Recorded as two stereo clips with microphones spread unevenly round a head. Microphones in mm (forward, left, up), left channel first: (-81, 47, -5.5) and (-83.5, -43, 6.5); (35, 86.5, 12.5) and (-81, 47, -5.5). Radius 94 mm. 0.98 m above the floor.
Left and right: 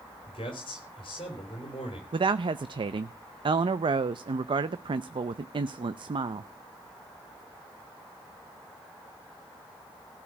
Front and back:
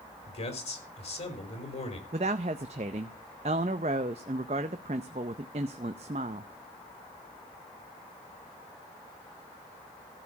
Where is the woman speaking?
120° right, 0.5 m.